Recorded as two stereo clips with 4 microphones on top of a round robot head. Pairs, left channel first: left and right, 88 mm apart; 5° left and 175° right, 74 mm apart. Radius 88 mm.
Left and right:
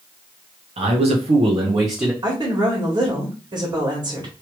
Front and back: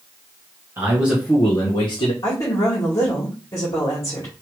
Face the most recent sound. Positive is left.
turn(degrees=-45)